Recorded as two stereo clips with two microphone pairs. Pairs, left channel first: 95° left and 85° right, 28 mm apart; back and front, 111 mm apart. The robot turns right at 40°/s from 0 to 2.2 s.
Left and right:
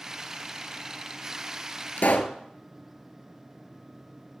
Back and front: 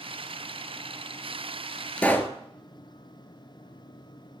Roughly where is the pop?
Left.